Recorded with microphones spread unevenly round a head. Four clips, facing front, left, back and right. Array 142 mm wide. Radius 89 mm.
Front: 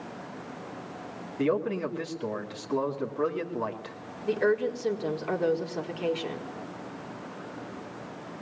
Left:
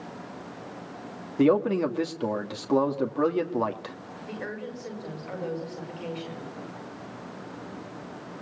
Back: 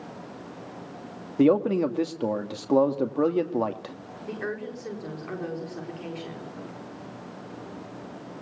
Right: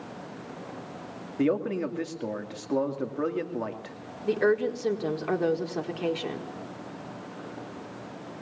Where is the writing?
I don't hear writing.